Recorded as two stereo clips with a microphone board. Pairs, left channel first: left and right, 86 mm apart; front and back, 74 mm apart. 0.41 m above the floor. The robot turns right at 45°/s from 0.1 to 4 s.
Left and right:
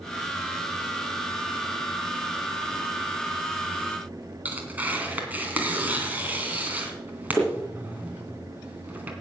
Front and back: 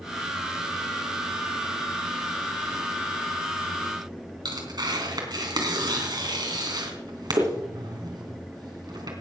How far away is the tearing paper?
About 3 m.